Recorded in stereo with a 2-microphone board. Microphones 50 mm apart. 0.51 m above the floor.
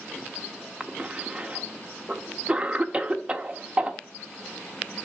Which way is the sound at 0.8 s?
25° right (ahead or behind).